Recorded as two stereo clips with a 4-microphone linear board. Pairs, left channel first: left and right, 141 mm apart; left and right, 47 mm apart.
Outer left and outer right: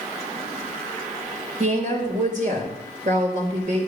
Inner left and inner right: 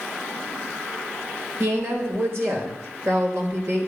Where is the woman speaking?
60° right (ahead or behind), 3.5 m.